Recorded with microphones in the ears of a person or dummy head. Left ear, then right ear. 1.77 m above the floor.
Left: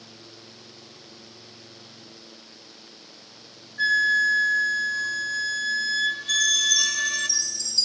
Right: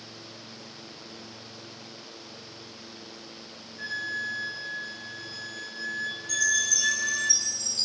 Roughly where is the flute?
Left.